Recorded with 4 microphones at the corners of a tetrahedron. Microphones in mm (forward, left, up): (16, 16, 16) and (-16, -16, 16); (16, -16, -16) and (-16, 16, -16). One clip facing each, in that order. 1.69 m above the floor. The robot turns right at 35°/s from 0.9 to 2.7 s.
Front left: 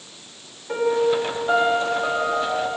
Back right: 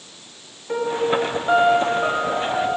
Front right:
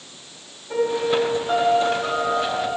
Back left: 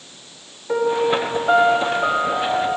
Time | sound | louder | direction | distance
0.7 | a piano | front left 1 dB, back left 3 dB | 135° left | 1.9 m